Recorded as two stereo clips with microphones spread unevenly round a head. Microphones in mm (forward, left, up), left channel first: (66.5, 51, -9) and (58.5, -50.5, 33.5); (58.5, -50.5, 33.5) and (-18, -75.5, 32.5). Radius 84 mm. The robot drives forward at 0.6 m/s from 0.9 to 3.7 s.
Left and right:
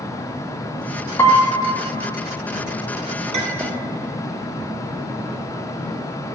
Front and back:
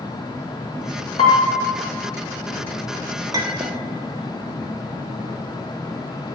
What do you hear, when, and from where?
1.2 s a piano: 25° left, 1.2 m; by 1.6 s 35° left, 1.0 m
3.3 s a clink: 120° right, 1.2 m; by 3.8 s 130° right, 1.4 m